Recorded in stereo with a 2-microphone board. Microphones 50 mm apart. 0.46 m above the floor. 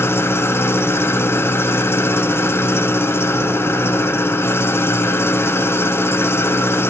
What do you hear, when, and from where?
0.0 s an engine running: 55° left (ahead or behind), 1.1 m